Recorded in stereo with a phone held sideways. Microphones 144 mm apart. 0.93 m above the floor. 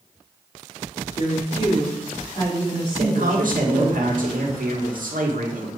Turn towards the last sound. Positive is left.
turn(degrees=-70)  # may be behind; listen again after turning